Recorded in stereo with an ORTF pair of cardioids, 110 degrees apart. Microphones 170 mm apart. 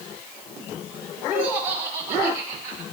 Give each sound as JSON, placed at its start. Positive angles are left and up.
{"t": 1.3, "sound": "laughter", "azimuth_deg": -65, "distance_m": 3.0}